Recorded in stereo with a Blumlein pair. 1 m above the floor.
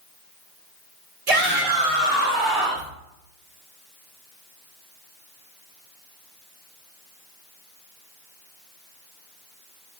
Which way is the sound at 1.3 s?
55° right.